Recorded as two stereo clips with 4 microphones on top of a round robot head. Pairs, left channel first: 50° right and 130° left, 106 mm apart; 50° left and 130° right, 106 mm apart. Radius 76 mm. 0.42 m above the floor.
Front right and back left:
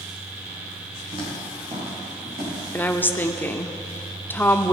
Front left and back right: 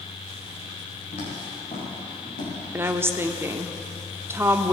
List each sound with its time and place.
1.1 s footsteps: 85° left, 6 m
2.7 s a woman speaking: 95° right, 0.8 m